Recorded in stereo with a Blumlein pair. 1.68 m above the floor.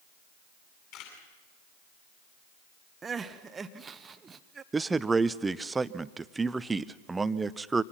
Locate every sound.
0.9 s a camera shutter: 40° left, 9.5 m
3.0 s crying: 15° right, 1.0 m
4.7 s a man speaking: 10° right, 0.7 m